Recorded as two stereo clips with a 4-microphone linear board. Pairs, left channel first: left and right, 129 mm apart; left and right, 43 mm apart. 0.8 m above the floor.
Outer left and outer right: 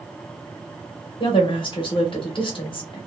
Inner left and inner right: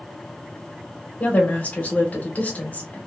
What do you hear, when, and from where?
1.2 s a woman speaking: 40° left (ahead or behind), 0.9 m